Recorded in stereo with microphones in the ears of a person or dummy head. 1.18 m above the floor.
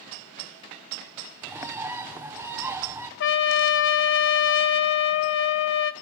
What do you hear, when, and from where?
1.4 s a bird: 15° right (ahead or behind), 1.1 m
3.2 s a trumpet: 65° left (ahead or behind), 0.9 m